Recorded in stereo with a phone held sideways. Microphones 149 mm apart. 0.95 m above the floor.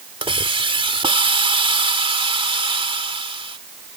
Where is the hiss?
35° right (ahead or behind).